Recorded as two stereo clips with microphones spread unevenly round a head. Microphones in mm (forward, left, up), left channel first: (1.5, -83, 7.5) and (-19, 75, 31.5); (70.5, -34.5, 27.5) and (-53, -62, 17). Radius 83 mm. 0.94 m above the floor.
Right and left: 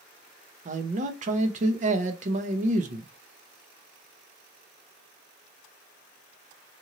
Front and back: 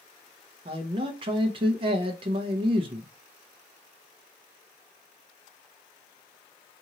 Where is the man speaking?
145° left, 0.7 m.